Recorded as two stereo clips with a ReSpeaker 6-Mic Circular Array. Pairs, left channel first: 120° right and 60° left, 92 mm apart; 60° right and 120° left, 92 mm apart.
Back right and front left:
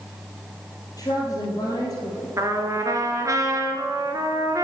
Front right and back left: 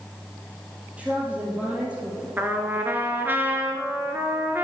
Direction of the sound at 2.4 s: 65° left.